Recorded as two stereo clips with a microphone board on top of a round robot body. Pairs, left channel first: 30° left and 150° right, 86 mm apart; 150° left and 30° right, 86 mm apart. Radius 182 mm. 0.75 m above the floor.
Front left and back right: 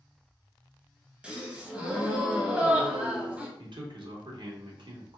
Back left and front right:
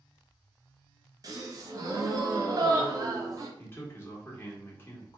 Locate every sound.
1.2 s a gasp: 75° right, 0.9 m
3.6 s a man speaking: 150° right, 1.3 m